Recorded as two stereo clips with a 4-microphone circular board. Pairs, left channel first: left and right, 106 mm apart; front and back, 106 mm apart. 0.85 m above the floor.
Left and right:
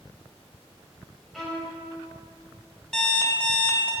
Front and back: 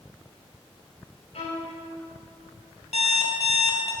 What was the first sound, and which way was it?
A violin, straight ahead.